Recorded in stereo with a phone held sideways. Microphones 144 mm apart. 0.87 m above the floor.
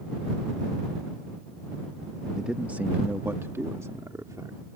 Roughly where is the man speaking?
Centre.